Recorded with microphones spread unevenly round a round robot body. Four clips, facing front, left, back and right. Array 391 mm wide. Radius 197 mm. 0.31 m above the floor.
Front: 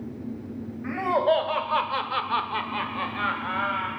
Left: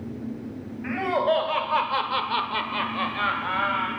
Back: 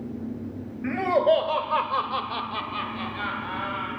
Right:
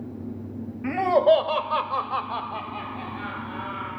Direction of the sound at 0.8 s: 125° right.